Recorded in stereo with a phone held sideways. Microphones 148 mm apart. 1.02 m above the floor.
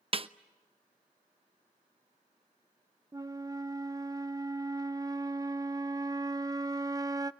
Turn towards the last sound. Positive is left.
turn(degrees=-25)  # may be behind; listen again after turning